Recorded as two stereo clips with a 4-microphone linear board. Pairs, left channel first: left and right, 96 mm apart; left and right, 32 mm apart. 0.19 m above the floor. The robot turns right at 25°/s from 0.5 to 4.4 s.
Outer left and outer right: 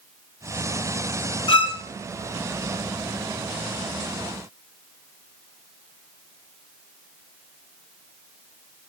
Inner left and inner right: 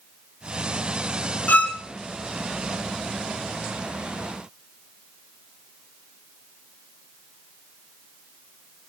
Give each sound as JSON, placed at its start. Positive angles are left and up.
{"t": 1.5, "sound": "a violin", "side_deg": 65, "distance_m": 0.7}